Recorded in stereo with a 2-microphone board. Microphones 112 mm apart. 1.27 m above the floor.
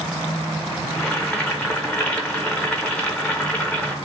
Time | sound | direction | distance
0.9 | boiling | 10° left (ahead or behind) | 0.6 m